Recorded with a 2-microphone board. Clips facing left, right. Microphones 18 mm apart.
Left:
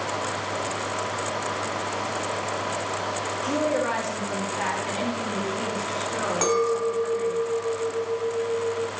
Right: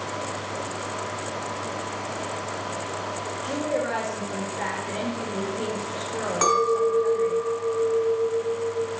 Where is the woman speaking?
65° left (ahead or behind), 2.5 m.